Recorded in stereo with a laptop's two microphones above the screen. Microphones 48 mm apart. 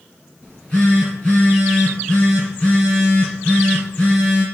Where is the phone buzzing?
25° left (ahead or behind), 3.5 m.